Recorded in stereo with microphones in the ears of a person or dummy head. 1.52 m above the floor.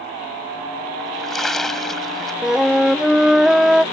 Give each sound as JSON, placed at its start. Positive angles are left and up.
{"t": 1.0, "sound": "a splash", "side_deg": 10}
{"t": 2.4, "sound": "a flute", "side_deg": 0}